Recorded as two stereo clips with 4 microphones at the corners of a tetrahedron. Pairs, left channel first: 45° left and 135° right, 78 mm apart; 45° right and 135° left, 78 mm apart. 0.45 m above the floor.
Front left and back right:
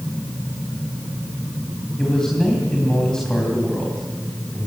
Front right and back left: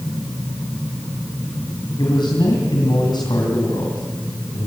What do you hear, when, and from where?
2.0 s a man speaking: 35° right, 3 m